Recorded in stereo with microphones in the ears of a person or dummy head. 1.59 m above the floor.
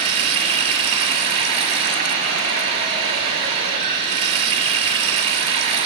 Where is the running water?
30° right (ahead or behind), 1.6 m.